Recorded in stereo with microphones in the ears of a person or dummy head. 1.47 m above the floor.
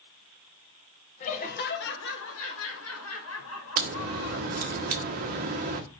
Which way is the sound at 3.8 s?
40° right (ahead or behind).